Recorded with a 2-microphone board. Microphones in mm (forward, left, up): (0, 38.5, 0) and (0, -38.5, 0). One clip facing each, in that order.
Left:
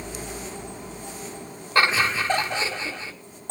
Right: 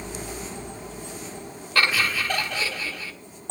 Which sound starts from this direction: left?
Laughter, at 1.8 s.